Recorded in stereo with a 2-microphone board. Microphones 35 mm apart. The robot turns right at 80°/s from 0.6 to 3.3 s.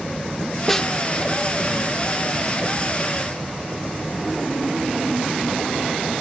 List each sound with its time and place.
0.7 s a snare drum: 5° left (ahead or behind); by 0.9 s 20° left (ahead or behind)